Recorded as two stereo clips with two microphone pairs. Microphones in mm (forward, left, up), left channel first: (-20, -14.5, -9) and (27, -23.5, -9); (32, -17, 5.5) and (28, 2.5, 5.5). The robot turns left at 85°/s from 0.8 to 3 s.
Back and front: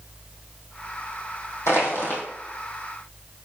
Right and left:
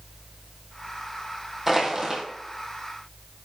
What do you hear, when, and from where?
1.7 s crushing: 170° left, 2 m; by 2.2 s 125° left, 2 m